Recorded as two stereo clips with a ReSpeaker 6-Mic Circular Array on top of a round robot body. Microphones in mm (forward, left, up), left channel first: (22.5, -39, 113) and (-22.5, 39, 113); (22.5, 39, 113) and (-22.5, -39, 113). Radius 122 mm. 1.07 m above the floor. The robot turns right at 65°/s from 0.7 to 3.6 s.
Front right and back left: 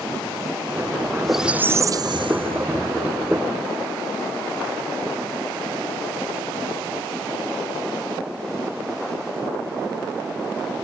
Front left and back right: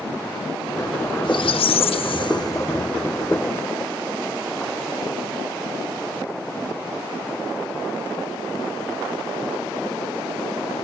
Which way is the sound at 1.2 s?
25° left.